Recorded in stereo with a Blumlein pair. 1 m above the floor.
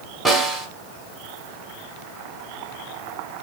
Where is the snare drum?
Straight ahead, 1.4 m.